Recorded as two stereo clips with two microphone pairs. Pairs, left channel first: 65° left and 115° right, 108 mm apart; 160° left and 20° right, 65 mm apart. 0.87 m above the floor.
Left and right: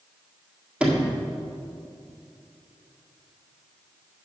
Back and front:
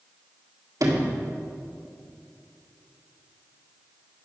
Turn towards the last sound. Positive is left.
turn(degrees=-35)